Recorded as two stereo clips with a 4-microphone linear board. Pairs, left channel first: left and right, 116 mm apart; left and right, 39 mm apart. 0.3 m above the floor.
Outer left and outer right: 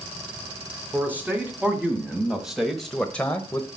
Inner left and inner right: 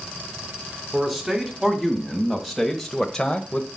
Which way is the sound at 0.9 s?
15° right (ahead or behind).